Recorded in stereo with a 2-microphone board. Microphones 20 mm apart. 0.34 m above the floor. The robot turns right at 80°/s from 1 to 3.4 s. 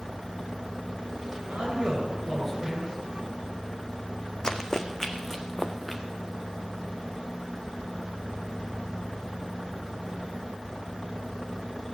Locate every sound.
1.5 s a man speaking: 80° right, 5 m; by 3.0 s 35° left, 5 m
4.4 s running footsteps: 35° left (ahead or behind), 1.2 m; by 6.0 s 10° left (ahead or behind), 2 m